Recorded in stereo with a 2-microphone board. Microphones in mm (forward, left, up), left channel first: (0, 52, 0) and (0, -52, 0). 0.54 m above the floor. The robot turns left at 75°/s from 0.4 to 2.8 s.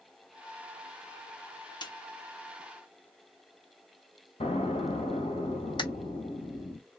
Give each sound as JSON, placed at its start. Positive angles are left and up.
{"t": 1.8, "sound": "a snare drum", "side_deg": 45, "distance_m": 0.9}
{"t": 4.4, "sound": "an explosion", "side_deg": 80, "distance_m": 1.5}
{"t": 5.8, "sound": "a camera shutter", "side_deg": 50, "distance_m": 1.0}